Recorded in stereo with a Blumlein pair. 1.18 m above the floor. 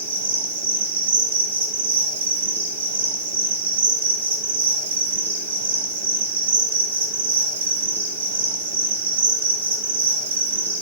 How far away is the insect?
About 2.5 m.